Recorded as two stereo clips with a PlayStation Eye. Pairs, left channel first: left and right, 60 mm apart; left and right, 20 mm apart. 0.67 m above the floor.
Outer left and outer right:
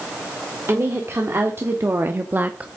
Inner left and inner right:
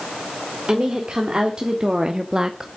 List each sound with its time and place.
0.7 s a woman speaking: 45° right (ahead or behind), 1.8 m; by 2.7 s 20° right (ahead or behind), 0.6 m